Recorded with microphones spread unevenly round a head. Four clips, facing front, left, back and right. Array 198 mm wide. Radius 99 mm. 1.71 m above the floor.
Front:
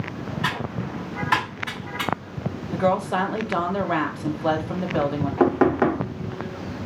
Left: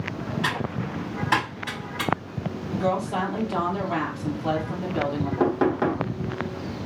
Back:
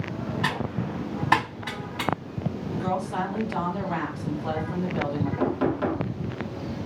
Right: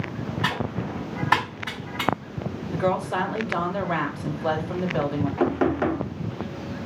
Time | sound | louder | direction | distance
0.4 | typing on a keyboard | right 2 dB, front 2 dB | 160° right | 1.5 m
2.7 | a woman speaking | right 1 dB, front 8 dB | 25° right | 0.7 m
5.4 | knocking | left 1 dB, front 8 dB | 10° left | 0.6 m